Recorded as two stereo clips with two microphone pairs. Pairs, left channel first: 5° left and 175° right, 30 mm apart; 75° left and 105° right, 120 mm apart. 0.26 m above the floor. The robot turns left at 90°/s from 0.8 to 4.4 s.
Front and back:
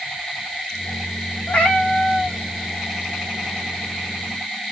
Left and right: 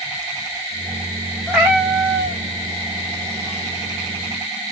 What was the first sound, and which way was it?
A cat meowing, 15° right.